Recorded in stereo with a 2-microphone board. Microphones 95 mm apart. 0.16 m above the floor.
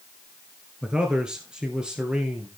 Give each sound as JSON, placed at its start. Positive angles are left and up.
{"t": 0.8, "sound": "a man speaking", "side_deg": -10, "distance_m": 2.0}